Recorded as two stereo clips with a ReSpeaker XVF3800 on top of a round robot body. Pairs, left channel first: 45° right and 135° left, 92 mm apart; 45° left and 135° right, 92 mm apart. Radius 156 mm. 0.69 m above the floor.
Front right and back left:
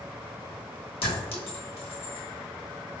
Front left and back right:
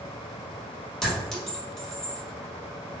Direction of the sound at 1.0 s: 40° right.